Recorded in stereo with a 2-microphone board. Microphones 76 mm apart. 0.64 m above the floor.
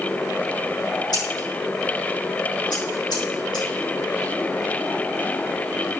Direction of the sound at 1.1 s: 65° left (ahead or behind).